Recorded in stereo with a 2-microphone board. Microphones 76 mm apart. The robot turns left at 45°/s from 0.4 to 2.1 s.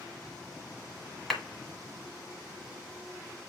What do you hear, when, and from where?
1.3 s a clap: centre (ahead or behind), 1.4 m; by 1.4 s 5° left (ahead or behind), 1.4 m